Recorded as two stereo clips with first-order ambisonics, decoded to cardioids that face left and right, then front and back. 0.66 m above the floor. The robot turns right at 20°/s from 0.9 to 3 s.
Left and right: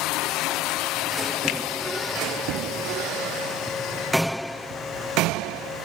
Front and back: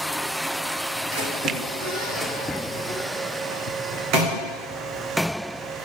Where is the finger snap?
130° left, 0.9 m; by 1.6 s 135° left, 0.9 m.